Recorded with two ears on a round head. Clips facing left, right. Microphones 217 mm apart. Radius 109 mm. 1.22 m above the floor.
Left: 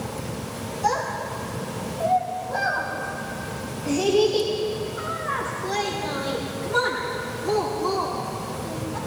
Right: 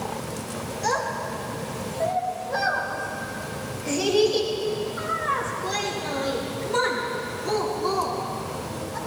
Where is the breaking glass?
No breaking glass in this recording.